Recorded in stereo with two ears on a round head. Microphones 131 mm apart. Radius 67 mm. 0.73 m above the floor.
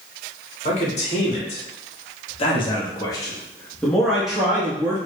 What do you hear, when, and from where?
0.7 s a man speaking: 50° left (ahead or behind), 1.7 m; by 5.0 s 15° right (ahead or behind), 1.1 m